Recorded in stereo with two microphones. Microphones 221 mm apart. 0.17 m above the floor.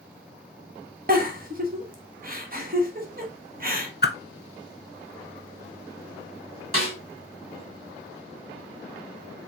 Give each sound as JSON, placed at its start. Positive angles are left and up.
{"t": 1.1, "sound": "a giggle", "side_deg": -40, "distance_m": 0.9}
{"t": 4.0, "sound": "a whoosh", "side_deg": 50, "distance_m": 0.6}
{"t": 6.7, "sound": "a snare drum", "side_deg": -75, "distance_m": 3.0}